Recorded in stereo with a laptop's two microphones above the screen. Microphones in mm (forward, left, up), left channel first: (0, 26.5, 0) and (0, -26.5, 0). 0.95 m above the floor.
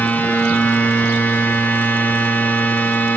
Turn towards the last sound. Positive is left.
turn(degrees=35)  # may be behind; listen again after turning